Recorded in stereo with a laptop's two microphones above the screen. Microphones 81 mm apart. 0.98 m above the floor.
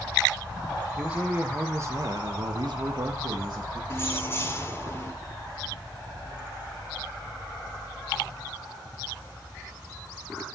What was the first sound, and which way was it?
A man speaking, 15° right (ahead or behind).